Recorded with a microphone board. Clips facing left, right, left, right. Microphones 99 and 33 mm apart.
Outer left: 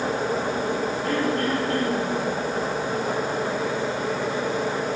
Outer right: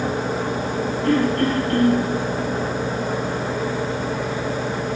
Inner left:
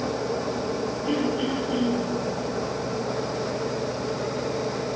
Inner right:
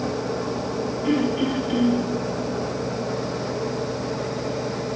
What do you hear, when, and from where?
1.0 s throat clearing: 65° right (ahead or behind), 5.5 m